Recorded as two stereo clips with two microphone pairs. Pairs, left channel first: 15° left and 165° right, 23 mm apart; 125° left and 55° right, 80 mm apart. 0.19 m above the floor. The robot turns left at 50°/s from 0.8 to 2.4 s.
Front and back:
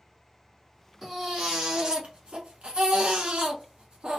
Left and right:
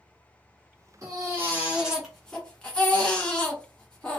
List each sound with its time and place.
1.0 s a baby crying: 90° right, 1.4 m; by 4.2 s 160° right, 1.4 m